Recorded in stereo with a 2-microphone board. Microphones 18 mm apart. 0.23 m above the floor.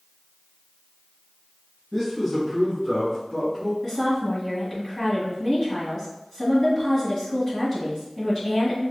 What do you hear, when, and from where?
1.9 s a man speaking: 5° left (ahead or behind), 1.6 m; by 3.7 s 40° left (ahead or behind), 2 m
3.8 s a woman speaking: 30° left (ahead or behind), 1.6 m